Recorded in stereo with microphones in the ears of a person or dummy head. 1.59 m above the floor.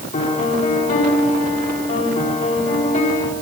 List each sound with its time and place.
0.1 s a piano: 40° left (ahead or behind), 4 m